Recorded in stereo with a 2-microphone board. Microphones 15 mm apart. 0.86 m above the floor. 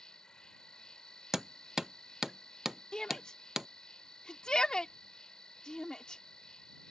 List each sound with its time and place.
0.0 s an insect: 65° left (ahead or behind)
1.3 s hammering: 30° right (ahead or behind)
2.9 s a shout: 65° left (ahead or behind)